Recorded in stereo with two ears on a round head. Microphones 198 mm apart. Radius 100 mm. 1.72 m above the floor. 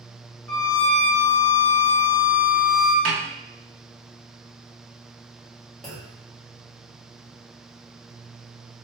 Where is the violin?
15° left (ahead or behind), 1.8 m.